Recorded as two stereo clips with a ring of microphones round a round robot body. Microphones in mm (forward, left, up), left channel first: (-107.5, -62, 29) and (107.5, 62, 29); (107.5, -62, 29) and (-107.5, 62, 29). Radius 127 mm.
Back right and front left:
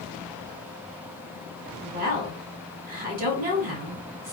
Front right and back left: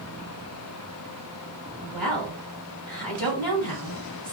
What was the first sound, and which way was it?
A woman speaking, 55° left.